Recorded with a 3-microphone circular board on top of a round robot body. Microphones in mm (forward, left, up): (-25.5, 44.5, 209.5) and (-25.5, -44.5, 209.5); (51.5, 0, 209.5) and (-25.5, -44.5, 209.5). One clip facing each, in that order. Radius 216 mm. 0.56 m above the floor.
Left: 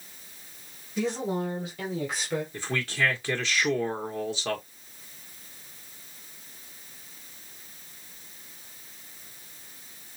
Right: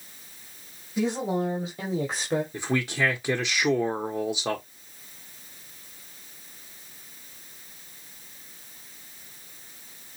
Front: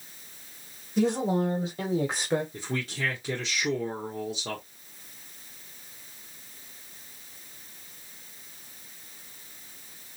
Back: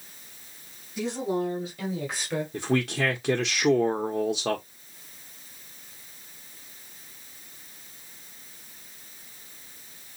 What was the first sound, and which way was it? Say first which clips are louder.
A woman speaking: right 2 dB, front 3 dB; 20° right.